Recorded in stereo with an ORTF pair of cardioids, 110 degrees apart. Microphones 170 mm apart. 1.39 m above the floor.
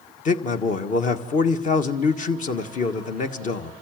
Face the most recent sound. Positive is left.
turn(degrees=50)